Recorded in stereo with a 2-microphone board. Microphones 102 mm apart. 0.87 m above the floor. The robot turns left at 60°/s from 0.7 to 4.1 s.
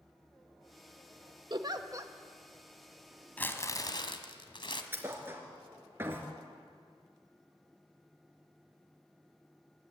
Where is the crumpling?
165° left, 1.4 m; by 4.8 s 120° left, 1.4 m.